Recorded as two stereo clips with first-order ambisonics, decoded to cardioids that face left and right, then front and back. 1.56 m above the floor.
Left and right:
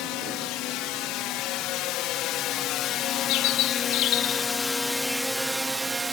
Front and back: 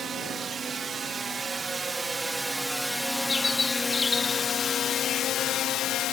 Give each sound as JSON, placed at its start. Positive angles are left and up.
{"t": 0.0, "sound": "a drone", "azimuth_deg": 115}
{"t": 3.3, "sound": "a bird", "azimuth_deg": 75}